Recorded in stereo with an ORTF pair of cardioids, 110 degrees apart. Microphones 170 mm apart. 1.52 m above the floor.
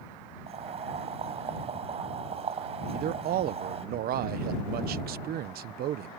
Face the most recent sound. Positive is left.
turn(degrees=-65)